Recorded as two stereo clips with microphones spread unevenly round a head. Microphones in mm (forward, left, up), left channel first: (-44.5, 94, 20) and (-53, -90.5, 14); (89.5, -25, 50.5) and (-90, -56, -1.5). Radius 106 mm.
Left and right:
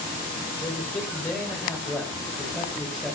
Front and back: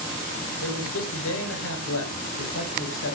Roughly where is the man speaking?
Ahead.